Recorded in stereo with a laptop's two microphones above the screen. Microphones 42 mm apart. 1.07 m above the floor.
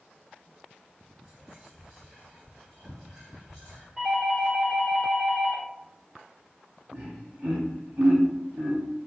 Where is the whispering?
25° right (ahead or behind), 1.4 m.